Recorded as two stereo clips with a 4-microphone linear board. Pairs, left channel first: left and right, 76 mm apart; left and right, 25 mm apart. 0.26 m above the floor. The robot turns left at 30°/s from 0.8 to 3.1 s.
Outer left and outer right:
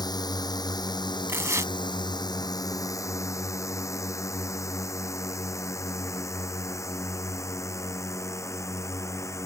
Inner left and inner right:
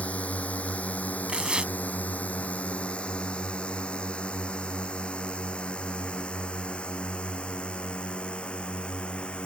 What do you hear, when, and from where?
0.0 s a drone: 65° left (ahead or behind); by 9.4 s 40° left (ahead or behind)
1.3 s tearing paper: 35° right (ahead or behind); by 1.7 s 45° right (ahead or behind)